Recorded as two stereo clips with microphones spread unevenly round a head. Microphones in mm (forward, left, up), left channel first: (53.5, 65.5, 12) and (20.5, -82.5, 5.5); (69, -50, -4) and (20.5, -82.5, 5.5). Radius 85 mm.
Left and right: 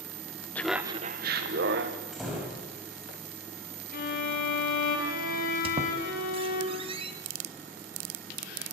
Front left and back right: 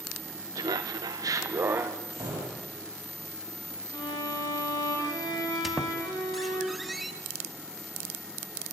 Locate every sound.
0.6 s laughter: 160° left, 0.9 m; by 2.0 s 95° right, 1.7 m
2.1 s a door slam: 170° left, 5.5 m
3.9 s a violin: 60° left, 3.5 m
5.6 s a squeak: 70° right, 1.5 m